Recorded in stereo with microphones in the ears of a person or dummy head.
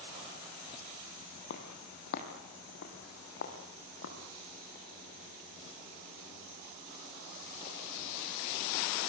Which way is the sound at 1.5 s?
65° left (ahead or behind).